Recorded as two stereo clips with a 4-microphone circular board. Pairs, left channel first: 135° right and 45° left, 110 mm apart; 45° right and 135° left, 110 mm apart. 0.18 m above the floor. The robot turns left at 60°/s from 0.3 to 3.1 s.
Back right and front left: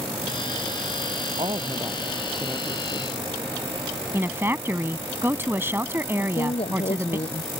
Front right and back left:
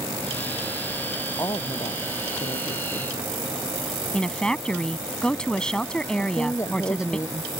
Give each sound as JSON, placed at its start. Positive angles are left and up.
{"t": 1.4, "sound": "a woman speaking", "azimuth_deg": 15}
{"t": 4.1, "sound": "a woman speaking", "azimuth_deg": 25}
{"t": 6.2, "sound": "a woman speaking", "azimuth_deg": -110}